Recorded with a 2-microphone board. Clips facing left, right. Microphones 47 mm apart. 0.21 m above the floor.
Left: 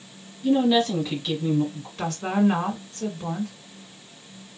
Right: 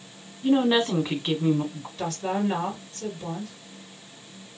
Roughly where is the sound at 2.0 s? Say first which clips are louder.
Left 4 dB; left.